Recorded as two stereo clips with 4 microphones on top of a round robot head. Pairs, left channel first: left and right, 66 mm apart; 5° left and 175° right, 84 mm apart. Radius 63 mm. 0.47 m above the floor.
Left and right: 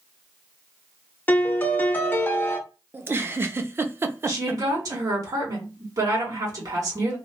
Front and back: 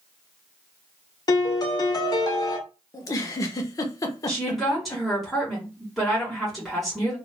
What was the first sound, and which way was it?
A piano, 30° left.